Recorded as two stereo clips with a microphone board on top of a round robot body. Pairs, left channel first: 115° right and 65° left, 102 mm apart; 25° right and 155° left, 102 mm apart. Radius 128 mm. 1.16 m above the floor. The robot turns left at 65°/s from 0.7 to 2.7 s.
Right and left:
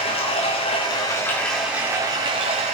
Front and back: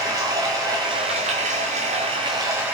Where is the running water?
145° right, 1.2 m; by 2.8 s 85° left, 1.2 m.